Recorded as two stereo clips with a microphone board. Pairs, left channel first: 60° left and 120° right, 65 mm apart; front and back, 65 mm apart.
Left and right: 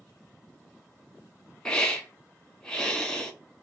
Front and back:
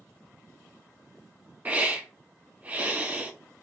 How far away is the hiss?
About 0.9 m.